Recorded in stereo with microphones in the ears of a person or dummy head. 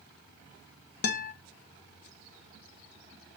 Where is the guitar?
55° left (ahead or behind), 1.2 m.